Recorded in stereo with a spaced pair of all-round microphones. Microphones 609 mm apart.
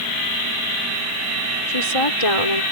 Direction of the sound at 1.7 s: 60° left (ahead or behind).